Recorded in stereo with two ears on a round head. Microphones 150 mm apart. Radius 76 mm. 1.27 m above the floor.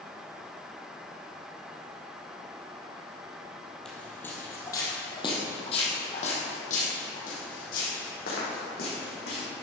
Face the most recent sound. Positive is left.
turn(degrees=65)  # may be behind; listen again after turning